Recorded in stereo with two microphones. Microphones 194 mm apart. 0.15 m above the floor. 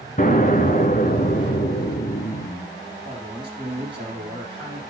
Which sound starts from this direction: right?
A man speaking, at 3.0 s.